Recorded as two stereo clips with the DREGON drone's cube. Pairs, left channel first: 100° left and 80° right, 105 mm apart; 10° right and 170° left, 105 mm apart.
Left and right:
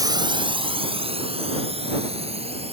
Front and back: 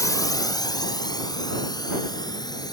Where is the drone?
50° right; by 2.7 s 60° right.